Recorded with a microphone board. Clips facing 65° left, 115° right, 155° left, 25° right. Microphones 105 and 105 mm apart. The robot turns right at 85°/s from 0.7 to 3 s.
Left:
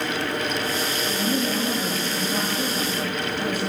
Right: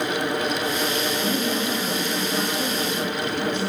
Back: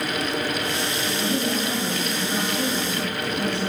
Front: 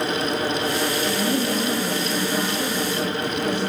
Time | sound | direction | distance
1.1 | a woman speaking | 15° right | 6.5 m